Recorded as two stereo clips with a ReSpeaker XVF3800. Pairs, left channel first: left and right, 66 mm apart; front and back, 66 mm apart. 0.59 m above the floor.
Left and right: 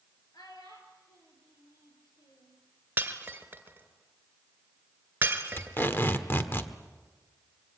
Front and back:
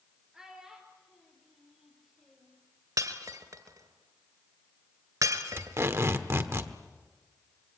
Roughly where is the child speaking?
Left.